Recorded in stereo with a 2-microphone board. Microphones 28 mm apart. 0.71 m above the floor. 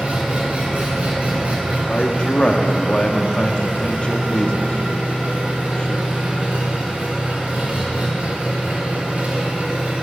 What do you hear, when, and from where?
0.0 s an engine running: 70° right (ahead or behind), 3 m
1.9 s a man speaking: 40° left (ahead or behind), 0.8 m